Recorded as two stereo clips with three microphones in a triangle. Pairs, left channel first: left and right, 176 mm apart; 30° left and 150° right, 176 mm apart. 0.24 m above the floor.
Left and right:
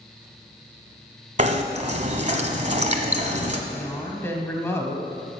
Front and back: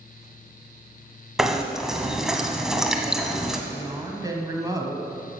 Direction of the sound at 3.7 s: 155° left.